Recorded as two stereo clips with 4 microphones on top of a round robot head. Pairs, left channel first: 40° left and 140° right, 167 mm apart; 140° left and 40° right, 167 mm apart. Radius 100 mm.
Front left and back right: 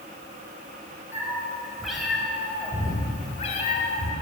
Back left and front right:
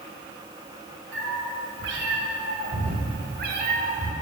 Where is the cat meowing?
60° right, 3 m; by 4.1 s 10° left, 1.6 m.